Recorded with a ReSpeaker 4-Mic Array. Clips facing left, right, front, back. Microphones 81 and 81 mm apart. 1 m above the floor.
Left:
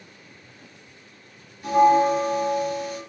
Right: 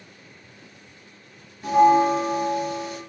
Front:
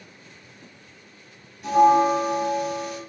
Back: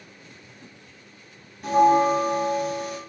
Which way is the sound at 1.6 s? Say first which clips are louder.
Right 1 dB, front 1 dB; 150° right.